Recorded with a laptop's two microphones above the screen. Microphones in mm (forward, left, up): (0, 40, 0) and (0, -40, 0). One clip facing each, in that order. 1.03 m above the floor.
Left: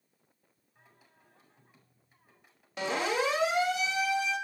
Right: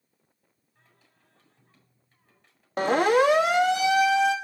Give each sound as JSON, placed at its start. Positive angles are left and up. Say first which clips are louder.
{"t": 0.8, "sound": "singing", "louder": "left 2 dB", "side_deg": 15, "distance_m": 8.0}
{"t": 2.8, "sound": "a siren", "louder": "right 10 dB", "side_deg": -45, "distance_m": 2.5}